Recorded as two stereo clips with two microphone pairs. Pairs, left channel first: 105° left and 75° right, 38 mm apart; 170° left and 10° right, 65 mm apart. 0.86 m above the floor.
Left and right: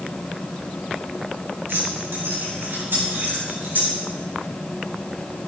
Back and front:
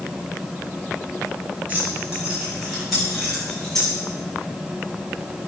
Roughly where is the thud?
I don't hear a thud.